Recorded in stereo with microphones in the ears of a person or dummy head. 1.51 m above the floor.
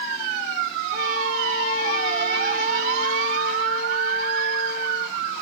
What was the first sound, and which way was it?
A trumpet, 45° right (ahead or behind).